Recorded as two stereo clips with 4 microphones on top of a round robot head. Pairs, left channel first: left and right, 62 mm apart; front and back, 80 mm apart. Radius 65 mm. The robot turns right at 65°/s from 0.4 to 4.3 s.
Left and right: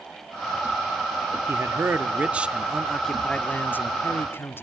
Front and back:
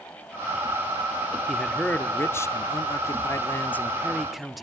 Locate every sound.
1.5 s a man speaking: 90° right, 1.0 m; by 4.6 s 95° left, 1.0 m